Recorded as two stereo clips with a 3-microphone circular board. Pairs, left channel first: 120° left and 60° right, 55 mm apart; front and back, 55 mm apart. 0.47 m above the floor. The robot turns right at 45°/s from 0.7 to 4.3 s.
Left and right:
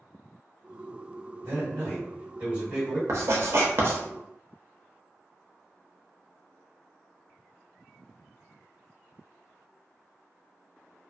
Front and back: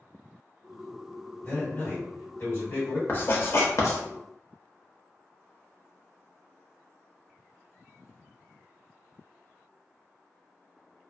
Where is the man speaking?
60° right, 1.8 m; by 3.0 s 10° left, 1.8 m.